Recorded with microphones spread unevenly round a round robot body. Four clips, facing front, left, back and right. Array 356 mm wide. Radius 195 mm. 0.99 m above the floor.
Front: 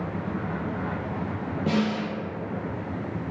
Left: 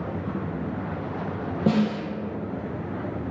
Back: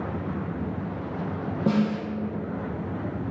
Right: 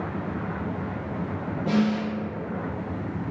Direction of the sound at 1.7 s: 105° left.